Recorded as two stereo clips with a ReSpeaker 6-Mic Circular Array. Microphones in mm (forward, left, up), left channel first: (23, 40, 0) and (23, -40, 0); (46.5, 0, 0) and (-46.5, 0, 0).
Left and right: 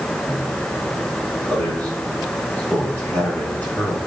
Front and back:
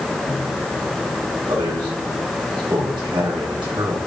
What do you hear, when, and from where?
1.5 s a man speaking: 155° left, 2.5 m